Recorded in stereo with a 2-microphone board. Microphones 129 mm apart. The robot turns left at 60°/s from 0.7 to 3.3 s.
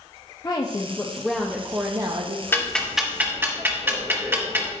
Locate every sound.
0.4 s a woman speaking: 40° left, 0.8 m; by 2.4 s 65° right, 0.8 m
2.5 s ticking: 20° left (ahead or behind), 1.3 m; by 4.7 s 15° right (ahead or behind), 1.3 m